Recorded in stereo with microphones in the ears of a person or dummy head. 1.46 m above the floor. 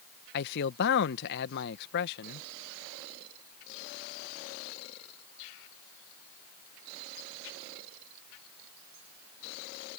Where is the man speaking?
60° left (ahead or behind).